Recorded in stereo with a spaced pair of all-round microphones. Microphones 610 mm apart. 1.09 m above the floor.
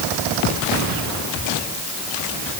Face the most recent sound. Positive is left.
No sound to turn to.